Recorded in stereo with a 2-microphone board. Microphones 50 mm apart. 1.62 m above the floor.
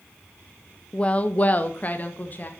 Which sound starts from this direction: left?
A woman speaking, at 0.9 s.